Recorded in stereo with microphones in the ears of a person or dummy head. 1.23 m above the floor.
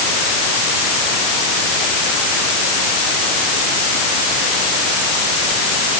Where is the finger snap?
I don't hear a finger snap.